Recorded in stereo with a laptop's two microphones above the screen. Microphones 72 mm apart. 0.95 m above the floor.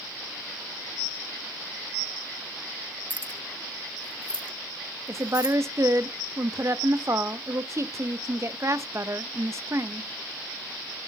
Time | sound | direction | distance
3.1 | keys jangling | 20° left (ahead or behind) | 0.5 m
5.1 | a woman speaking | 45° right (ahead or behind) | 0.7 m